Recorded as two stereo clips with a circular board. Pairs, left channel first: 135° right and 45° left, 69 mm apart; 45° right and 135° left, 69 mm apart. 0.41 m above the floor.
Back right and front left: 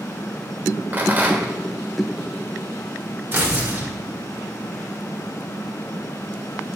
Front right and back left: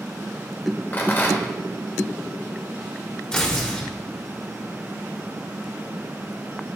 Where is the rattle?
5° right, 1.2 m.